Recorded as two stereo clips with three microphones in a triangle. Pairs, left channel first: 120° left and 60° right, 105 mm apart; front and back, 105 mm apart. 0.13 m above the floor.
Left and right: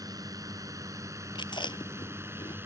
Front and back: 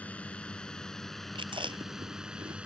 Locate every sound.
0.0 s a drone: 65° right; by 2.6 s 110° right
1.4 s chewing: 155° left